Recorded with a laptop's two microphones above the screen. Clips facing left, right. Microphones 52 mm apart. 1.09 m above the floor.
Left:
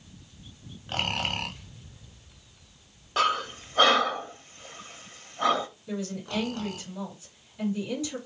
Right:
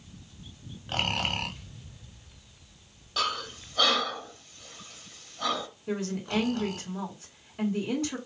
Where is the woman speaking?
60° right (ahead or behind), 3 m.